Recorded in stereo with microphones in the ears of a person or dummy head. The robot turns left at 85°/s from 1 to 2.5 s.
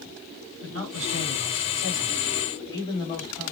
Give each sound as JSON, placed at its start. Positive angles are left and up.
{"t": 0.6, "sound": "a man speaking", "azimuth_deg": -80, "distance_m": 2.5}